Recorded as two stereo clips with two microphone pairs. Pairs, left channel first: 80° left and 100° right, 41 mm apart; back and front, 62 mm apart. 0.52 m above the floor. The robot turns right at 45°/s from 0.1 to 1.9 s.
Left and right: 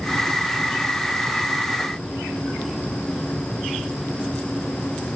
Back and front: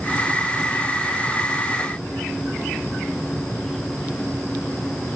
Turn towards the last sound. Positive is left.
No sound to turn to.